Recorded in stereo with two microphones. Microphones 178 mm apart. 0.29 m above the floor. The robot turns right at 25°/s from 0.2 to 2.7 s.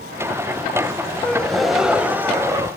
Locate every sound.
1.2 s a gasp: 170° left, 0.5 m; by 2.7 s 155° right, 0.5 m